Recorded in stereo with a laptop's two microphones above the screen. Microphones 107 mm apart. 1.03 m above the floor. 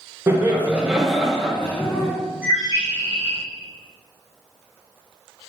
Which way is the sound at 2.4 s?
20° right (ahead or behind).